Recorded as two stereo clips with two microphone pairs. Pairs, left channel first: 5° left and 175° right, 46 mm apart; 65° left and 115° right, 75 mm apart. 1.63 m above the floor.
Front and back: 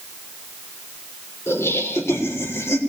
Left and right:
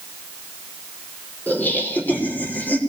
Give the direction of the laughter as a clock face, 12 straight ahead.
12 o'clock.